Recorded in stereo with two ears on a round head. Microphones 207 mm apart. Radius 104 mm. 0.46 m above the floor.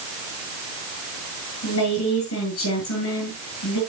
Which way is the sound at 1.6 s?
65° left (ahead or behind).